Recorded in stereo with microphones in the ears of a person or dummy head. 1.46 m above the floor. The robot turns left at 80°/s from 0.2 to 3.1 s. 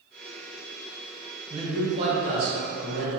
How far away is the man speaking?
About 1.5 m.